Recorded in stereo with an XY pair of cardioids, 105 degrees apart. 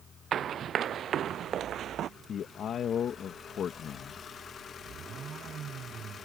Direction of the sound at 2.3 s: 60° left.